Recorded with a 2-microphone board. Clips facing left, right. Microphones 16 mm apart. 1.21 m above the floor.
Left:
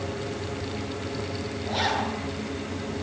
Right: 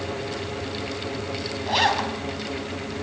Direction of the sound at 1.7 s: 60° right (ahead or behind).